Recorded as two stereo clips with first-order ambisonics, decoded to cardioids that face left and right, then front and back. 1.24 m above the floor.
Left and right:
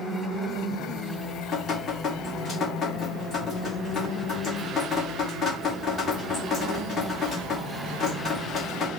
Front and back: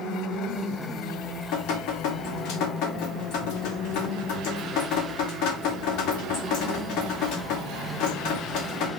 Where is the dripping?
25° left, 2.5 m.